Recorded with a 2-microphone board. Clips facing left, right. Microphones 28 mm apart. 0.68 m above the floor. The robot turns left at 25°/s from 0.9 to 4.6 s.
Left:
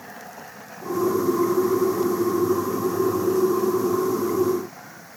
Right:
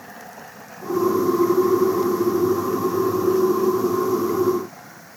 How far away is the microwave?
I don't hear a microwave.